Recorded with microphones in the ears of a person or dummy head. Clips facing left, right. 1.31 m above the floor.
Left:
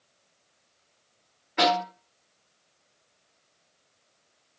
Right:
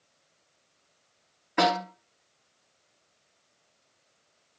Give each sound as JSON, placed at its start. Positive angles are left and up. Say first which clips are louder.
{"t": 1.6, "sound": "a snare drum", "louder": "left 1 dB", "side_deg": -75, "distance_m": 1.7}